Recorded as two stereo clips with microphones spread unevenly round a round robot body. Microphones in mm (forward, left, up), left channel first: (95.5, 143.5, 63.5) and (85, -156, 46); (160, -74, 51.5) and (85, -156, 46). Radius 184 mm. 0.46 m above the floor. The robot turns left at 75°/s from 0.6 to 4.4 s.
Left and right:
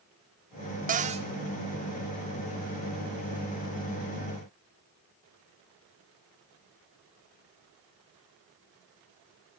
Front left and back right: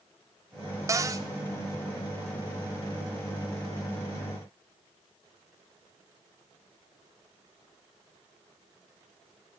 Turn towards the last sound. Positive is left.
turn(degrees=-15)